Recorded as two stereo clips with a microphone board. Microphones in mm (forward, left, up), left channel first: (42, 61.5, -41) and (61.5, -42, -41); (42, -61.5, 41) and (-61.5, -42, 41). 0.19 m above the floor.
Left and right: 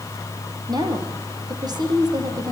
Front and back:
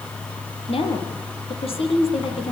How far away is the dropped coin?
I don't hear a dropped coin.